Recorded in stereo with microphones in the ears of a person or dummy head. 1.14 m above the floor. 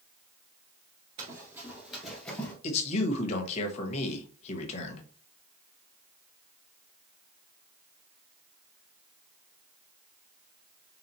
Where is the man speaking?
35° left (ahead or behind), 1.1 m.